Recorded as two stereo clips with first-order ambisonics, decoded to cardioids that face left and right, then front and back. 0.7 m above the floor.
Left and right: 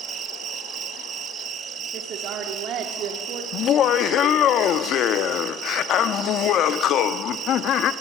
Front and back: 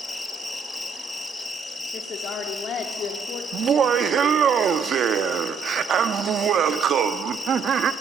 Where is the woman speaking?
55° right, 1.8 m.